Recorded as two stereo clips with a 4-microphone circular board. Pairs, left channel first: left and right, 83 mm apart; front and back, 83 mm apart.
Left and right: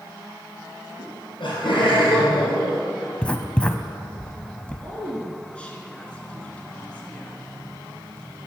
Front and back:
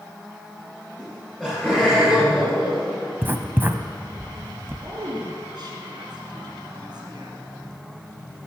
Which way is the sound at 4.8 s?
165° left.